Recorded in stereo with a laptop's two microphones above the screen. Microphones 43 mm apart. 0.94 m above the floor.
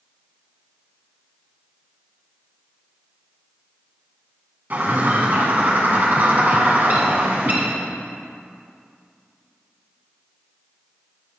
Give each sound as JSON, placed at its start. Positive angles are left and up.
{"t": 4.7, "sound": "a bird", "side_deg": -45, "distance_m": 1.6}